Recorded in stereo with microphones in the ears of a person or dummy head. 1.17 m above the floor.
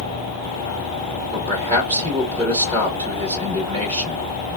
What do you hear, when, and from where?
1.3 s a man speaking: 30° right (ahead or behind), 1.2 m